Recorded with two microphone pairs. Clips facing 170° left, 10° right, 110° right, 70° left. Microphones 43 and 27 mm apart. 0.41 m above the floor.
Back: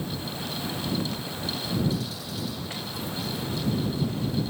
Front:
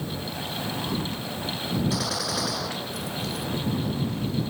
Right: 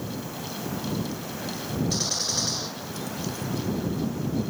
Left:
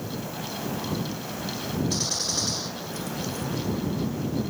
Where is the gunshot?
20° right.